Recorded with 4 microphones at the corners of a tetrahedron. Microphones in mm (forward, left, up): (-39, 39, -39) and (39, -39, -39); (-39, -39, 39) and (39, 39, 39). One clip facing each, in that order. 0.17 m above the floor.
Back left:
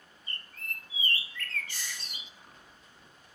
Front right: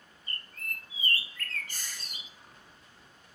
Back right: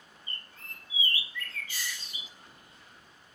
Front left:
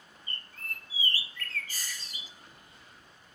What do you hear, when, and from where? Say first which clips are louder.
0.3 s a bird: front right 1 dB, front left 4 dB; 5° right, 1.4 m
1.7 s a hiss: back left 2 dB, back right 3 dB; 5° right, 5.5 m